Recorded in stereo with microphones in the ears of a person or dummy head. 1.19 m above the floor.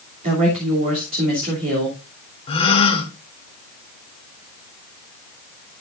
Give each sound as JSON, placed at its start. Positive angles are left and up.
{"t": 0.2, "sound": "a woman speaking", "side_deg": -45, "distance_m": 3.0}
{"t": 2.5, "sound": "a gasp", "side_deg": 20, "distance_m": 1.7}